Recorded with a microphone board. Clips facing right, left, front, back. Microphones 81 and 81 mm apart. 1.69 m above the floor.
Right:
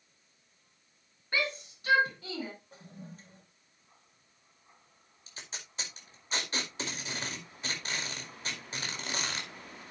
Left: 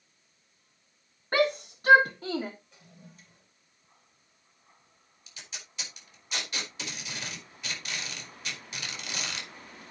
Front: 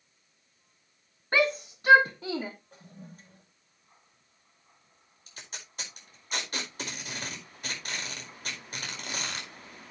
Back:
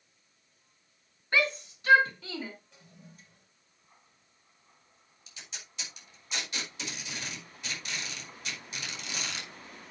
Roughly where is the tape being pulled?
Ahead right.